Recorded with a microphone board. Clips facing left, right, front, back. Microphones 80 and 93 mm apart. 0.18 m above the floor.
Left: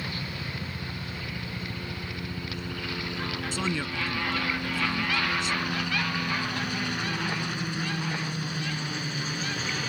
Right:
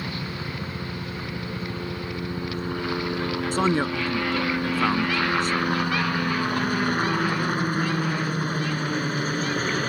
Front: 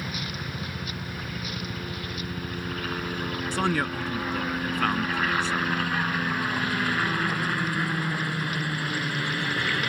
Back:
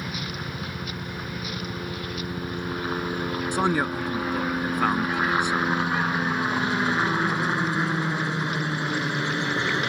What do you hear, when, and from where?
0.0 s a helicopter: 115° right
3.5 s a man speaking: 110° right